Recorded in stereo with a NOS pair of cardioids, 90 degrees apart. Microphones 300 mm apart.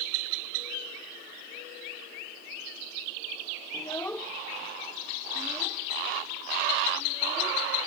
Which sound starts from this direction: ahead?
A child speaking, at 3.7 s.